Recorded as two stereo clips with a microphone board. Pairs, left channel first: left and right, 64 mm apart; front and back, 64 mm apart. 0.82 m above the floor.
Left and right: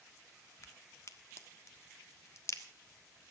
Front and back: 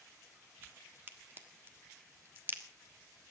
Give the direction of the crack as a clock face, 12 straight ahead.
8 o'clock.